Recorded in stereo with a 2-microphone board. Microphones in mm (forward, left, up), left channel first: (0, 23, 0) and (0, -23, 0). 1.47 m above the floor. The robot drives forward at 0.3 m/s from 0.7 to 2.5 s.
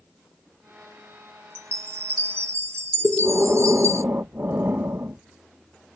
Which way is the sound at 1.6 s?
60° right (ahead or behind).